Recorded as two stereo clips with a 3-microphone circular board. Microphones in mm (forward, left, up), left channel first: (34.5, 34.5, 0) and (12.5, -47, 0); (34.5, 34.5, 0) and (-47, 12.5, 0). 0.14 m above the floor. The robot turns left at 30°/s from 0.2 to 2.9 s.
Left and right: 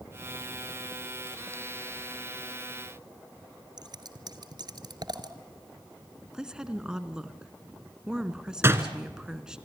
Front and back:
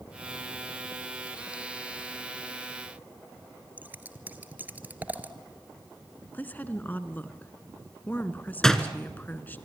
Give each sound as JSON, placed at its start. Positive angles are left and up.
{"t": 3.8, "sound": "scissors", "azimuth_deg": -100, "distance_m": 1.2}
{"t": 6.3, "sound": "a woman speaking", "azimuth_deg": -30, "distance_m": 1.4}
{"t": 8.6, "sound": "a door slam", "azimuth_deg": -65, "distance_m": 1.3}